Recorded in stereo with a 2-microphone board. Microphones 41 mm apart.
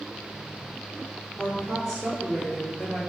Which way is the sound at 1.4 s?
20° left (ahead or behind).